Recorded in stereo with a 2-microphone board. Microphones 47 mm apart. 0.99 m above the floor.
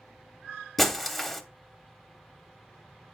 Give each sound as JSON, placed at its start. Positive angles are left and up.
{"t": 0.8, "sound": "breaking glass", "side_deg": 5, "distance_m": 1.0}